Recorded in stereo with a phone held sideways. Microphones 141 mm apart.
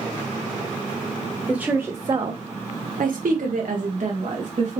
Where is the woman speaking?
5° right (ahead or behind), 0.8 m; by 4.8 s 60° right (ahead or behind), 1.6 m.